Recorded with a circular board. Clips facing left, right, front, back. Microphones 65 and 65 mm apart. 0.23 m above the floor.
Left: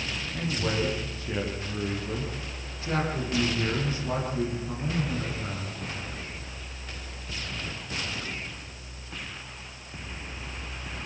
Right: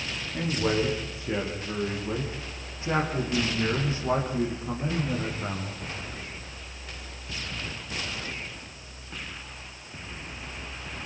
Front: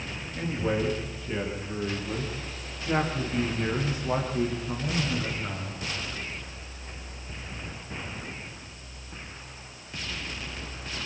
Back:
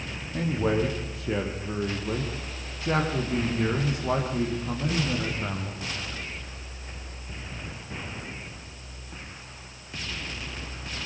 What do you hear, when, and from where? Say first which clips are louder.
0.3 s a man speaking: right 4 dB, back 3 dB; 165° right, 9 m; by 5.8 s 150° right, 10.5 m